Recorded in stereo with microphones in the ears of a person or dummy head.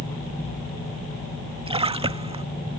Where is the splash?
30° right (ahead or behind).